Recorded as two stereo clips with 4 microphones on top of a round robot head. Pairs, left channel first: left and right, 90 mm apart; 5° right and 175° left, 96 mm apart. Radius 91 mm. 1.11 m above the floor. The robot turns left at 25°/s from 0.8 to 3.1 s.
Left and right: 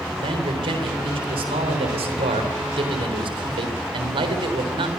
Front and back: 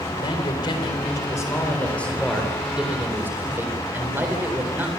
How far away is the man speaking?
About 4 m.